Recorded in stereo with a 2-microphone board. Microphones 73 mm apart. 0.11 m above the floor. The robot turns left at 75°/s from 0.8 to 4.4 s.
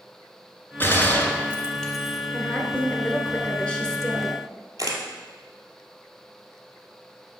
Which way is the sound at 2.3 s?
15° left (ahead or behind).